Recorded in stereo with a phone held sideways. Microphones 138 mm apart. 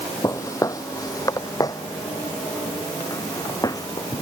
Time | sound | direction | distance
0.2 | footsteps | 25° left (ahead or behind) | ?